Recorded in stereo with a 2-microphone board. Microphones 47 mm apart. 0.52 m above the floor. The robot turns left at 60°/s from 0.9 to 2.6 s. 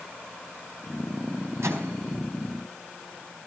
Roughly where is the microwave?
Right.